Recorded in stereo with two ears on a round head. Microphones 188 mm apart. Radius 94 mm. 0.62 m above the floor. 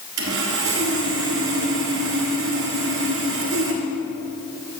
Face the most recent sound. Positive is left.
turn(degrees=-70)  # may be behind; listen again after turning